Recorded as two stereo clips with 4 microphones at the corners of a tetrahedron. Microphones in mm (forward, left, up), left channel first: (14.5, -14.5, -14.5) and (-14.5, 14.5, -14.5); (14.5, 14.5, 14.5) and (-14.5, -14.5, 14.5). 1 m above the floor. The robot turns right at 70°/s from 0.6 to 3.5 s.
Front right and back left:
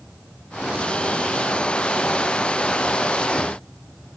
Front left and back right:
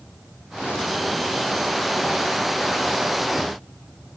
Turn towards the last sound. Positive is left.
No sound to turn to.